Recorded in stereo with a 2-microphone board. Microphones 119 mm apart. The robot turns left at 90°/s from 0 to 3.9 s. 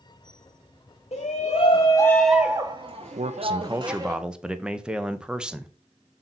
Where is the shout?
105° left, 0.7 m; by 4.2 s 145° right, 0.7 m.